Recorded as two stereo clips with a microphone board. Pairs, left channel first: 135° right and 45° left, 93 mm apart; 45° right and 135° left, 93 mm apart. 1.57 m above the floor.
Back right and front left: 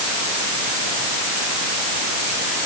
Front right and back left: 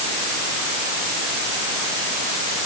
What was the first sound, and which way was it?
Only background noise.